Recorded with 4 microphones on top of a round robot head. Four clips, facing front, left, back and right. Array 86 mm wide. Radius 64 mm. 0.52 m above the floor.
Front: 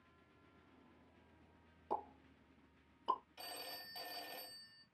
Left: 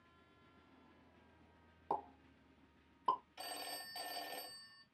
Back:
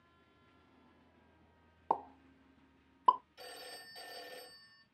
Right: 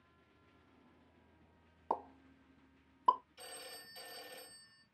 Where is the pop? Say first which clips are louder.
Right 2 dB, back 8 dB; 170° right, 1.0 m.